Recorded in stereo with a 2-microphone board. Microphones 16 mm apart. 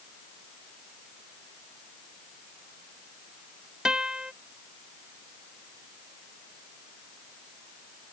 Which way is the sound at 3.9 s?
60° right (ahead or behind).